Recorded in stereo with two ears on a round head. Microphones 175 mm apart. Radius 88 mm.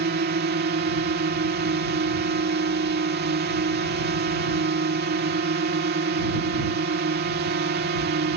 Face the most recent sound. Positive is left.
turn(degrees=-55)  # may be behind; listen again after turning